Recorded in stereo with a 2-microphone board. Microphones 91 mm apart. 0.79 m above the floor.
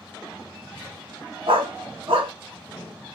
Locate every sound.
1.5 s a dog barking: 80° right, 1.7 m